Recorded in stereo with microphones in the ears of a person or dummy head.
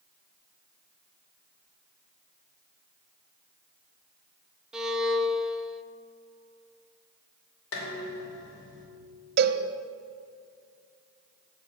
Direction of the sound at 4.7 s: 5° right (ahead or behind).